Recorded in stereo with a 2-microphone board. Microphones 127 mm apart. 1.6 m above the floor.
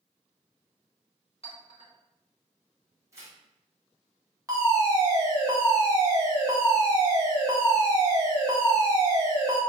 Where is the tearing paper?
25° right (ahead or behind), 1.2 m.